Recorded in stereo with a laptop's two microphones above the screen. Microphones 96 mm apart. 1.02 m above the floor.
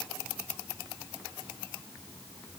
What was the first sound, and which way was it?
Only background noise.